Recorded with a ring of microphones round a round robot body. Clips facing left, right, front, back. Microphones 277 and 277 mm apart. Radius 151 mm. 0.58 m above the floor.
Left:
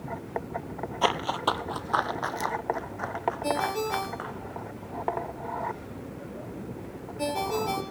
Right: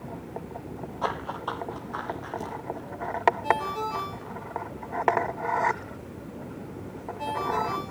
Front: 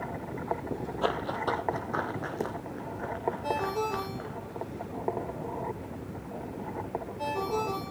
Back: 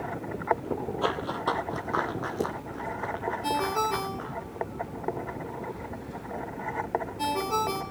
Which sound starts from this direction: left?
Running footsteps, at 1.0 s.